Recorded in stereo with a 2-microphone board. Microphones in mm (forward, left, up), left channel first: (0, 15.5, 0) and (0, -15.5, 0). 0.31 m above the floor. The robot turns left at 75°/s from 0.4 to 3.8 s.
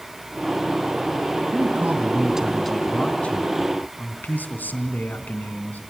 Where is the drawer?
No drawer in this recording.